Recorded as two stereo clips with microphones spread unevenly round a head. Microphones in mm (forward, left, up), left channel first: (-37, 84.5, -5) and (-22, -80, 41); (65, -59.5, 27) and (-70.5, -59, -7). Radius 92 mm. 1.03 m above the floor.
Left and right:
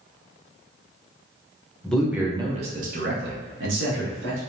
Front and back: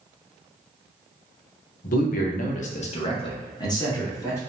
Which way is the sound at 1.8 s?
25° left.